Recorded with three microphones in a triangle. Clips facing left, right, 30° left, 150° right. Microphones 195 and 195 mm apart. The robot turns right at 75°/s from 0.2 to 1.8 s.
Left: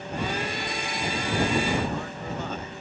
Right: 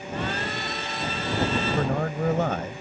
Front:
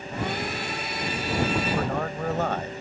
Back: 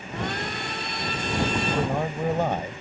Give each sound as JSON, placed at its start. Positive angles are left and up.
{"t": 1.6, "sound": "a man speaking", "azimuth_deg": -90}